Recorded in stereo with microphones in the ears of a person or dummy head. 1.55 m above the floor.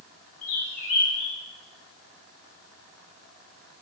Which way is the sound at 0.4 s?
45° left (ahead or behind).